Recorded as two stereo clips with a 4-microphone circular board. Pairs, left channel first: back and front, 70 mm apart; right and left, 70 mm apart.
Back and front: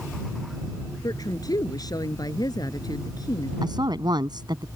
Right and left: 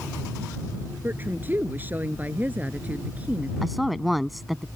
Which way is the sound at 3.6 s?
Straight ahead.